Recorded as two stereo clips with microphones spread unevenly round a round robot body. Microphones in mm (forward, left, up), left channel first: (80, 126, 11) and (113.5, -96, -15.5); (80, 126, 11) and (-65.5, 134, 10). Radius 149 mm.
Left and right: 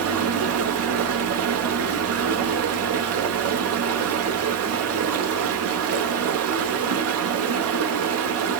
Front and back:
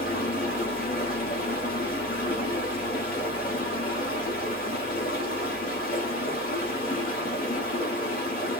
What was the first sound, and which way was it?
Running water, 65° right.